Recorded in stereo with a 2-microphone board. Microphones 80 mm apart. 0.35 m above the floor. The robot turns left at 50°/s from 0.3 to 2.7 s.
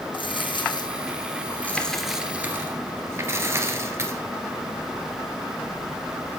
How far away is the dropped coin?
About 2 m.